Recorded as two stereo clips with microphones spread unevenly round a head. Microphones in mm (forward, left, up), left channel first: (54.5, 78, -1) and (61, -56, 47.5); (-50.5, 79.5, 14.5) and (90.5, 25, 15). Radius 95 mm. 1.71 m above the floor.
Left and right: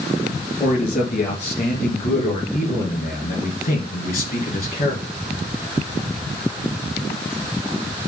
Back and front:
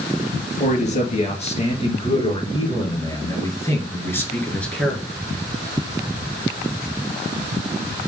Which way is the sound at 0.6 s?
120° left.